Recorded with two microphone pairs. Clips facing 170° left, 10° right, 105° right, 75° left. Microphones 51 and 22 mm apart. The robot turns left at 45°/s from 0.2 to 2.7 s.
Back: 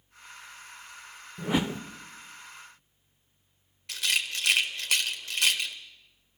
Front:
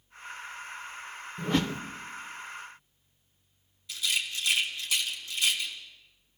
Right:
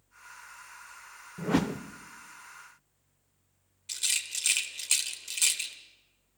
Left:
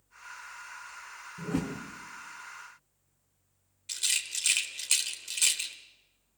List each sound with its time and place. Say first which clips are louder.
1.4 s a whoosh: even, right 5 dB; 105° right, 0.6 m; by 1.8 s 125° right, 0.6 m
3.9 s a rattle: back 2 dB, even; 160° left, 1.3 m